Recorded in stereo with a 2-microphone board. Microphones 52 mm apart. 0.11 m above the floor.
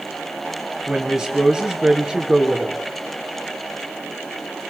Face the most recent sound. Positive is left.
turn(degrees=-15)  # may be behind; listen again after turning